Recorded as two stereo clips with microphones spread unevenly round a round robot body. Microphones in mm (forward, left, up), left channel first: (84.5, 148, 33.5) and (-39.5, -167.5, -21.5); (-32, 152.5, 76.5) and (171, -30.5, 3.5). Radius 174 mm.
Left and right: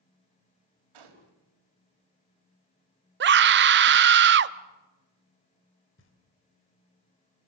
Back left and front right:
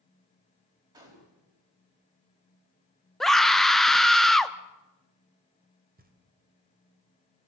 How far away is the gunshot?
About 4 m.